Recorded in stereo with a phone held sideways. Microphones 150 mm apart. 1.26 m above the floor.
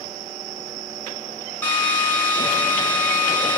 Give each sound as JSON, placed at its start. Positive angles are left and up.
{"t": 1.6, "sound": "a drill", "side_deg": 10, "distance_m": 8.5}